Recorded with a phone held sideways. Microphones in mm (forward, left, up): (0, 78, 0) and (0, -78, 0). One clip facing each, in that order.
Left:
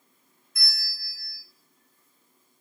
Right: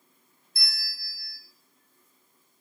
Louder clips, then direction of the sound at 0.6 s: Left 1 dB; 30° right (ahead or behind).